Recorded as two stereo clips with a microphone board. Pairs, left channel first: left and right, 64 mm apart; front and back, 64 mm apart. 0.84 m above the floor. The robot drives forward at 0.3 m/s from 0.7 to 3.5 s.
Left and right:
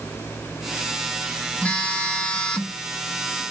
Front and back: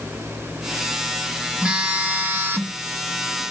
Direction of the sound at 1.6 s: 125° left.